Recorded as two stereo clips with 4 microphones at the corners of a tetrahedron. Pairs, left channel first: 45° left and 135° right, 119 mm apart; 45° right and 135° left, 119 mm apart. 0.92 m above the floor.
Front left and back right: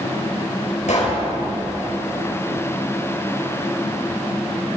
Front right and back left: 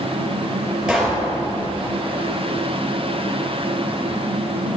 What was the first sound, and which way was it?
A pop, 50° left.